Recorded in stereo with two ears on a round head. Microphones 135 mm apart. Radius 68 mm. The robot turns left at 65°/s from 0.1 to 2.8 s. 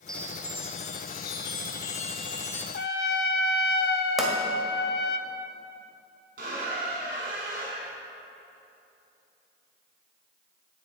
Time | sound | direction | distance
0.1 | a chime | 175° left | 0.9 m
2.7 | a trumpet | 70° left (ahead or behind) | 0.6 m
4.2 | a pop | centre (ahead or behind) | 1.8 m
6.4 | a squeak | 65° right (ahead or behind) | 3 m